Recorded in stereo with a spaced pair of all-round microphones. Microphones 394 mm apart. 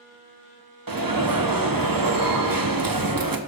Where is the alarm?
60° right (ahead or behind), 0.9 m.